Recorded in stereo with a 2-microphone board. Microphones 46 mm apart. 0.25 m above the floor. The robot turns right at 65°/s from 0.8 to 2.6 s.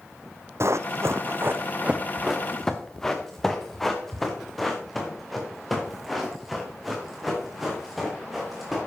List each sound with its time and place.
0.6 s running footsteps: 65° right (ahead or behind), 0.8 m; by 8.8 s centre (ahead or behind), 5.5 m